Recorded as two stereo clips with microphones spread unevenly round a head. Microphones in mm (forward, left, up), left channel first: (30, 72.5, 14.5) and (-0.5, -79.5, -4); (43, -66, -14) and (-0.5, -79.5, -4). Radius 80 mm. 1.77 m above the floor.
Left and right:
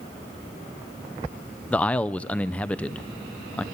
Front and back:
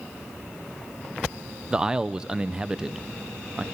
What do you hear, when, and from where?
1.7 s a man speaking: 150° left, 0.7 m